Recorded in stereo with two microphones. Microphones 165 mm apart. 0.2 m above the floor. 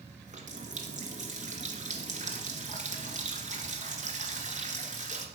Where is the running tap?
45° right (ahead or behind), 2.0 m.